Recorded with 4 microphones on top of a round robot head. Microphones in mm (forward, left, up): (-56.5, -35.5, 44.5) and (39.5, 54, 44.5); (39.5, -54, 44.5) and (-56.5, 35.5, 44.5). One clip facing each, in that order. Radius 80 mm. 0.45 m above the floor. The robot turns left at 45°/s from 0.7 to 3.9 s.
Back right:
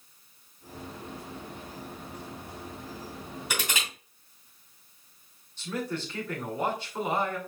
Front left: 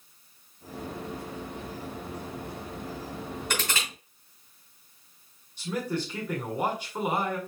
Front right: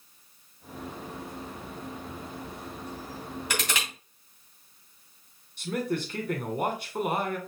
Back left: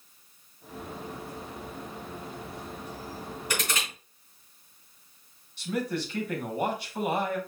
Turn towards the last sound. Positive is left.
turn(degrees=-30)